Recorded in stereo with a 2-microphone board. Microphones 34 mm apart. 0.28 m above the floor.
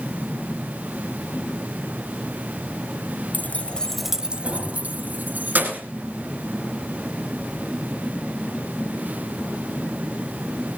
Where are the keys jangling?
55° left (ahead or behind), 1.1 m; by 5.9 s 60° right (ahead or behind), 3 m.